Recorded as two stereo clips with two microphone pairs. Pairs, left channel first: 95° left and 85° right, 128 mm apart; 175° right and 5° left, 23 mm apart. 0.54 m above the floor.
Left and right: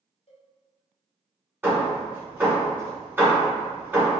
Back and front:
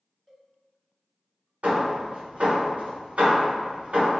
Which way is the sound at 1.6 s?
10° right.